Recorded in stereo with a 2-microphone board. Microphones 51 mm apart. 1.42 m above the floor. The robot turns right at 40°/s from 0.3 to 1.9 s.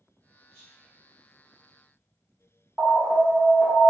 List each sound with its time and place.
0.5 s whispering: 20° left (ahead or behind), 1.6 m; by 0.9 s 35° left (ahead or behind), 1.6 m
2.8 s an alarm: 40° right (ahead or behind), 0.9 m